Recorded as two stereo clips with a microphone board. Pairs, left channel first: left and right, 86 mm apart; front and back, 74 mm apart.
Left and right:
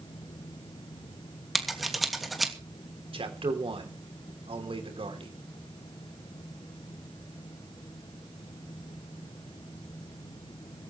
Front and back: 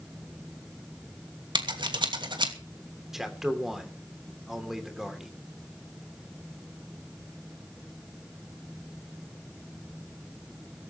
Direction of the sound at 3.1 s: 95° right.